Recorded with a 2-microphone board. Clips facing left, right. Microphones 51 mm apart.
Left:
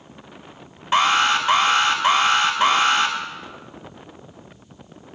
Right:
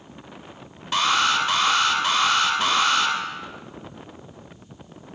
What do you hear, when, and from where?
0.9 s an alarm: 25° left (ahead or behind), 2 m